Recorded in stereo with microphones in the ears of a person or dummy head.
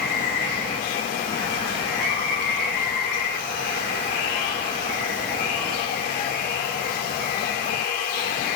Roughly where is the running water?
Left.